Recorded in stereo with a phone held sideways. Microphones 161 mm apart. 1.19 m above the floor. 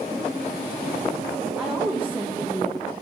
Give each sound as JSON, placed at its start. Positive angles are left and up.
{"t": 1.6, "sound": "a woman speaking", "side_deg": -10, "distance_m": 0.9}